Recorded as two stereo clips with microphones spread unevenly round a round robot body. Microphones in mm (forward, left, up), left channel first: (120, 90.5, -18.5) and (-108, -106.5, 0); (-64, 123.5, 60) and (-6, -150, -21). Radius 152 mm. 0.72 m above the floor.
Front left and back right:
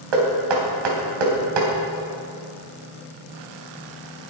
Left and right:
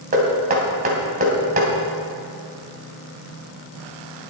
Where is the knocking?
140° right, 3 m.